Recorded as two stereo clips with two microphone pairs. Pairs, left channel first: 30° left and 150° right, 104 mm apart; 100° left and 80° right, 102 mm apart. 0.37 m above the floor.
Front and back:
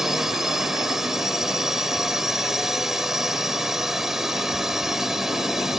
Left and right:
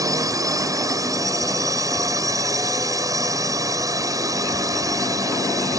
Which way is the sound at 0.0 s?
70° right.